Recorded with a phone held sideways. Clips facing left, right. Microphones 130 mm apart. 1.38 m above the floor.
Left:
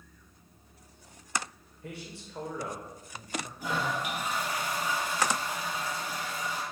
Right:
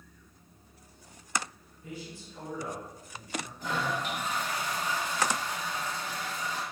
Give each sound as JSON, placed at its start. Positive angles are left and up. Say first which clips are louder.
{"t": 1.8, "sound": "a man speaking", "louder": "even", "side_deg": 60, "distance_m": 1.1}
{"t": 3.6, "sound": "a toilet flushing", "louder": "even", "side_deg": 10, "distance_m": 0.8}